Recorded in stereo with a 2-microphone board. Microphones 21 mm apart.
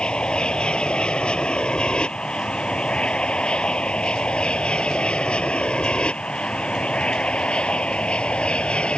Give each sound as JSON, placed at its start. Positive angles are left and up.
{"t": 0.0, "sound": "an aircraft", "side_deg": 50}